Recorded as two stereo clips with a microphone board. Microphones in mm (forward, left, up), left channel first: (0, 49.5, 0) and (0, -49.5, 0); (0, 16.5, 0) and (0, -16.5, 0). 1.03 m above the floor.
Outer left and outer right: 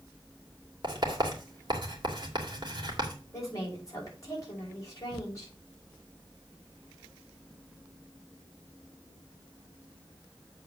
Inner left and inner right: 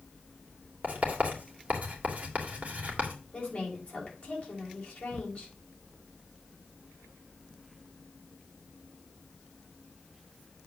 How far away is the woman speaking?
About 5.5 m.